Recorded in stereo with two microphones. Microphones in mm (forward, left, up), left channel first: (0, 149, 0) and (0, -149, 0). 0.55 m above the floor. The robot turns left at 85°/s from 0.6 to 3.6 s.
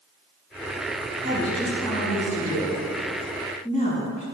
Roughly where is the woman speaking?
Behind right.